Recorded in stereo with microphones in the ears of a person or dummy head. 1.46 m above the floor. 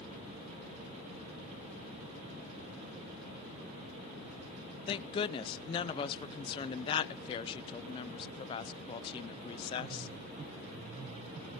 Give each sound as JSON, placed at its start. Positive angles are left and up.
{"t": 4.9, "sound": "a woman speaking", "side_deg": 35, "distance_m": 0.5}